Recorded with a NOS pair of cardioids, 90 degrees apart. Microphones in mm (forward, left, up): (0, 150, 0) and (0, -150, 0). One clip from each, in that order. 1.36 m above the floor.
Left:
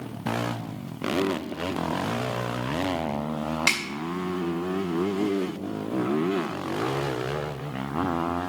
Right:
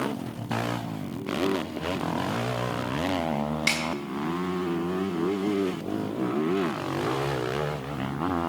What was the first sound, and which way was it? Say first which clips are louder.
A snare drum: left 2 dB; 30° left.